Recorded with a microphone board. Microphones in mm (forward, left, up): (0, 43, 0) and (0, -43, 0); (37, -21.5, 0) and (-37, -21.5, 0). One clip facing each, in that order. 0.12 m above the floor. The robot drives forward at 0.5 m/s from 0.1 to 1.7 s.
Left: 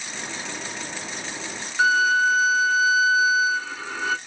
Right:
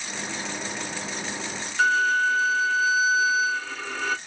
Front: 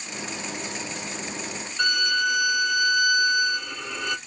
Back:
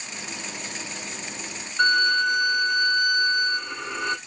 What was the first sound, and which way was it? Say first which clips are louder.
A violin: left 2 dB, back 4 dB; 160° left.